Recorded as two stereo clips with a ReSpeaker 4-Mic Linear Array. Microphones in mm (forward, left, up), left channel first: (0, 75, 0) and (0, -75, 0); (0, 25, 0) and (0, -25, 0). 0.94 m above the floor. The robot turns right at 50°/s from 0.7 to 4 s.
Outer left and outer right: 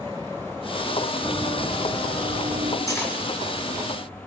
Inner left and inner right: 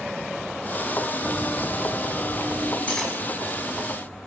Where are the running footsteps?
Centre (ahead or behind), 2.5 m; by 2.8 s 40° right (ahead or behind), 1.9 m.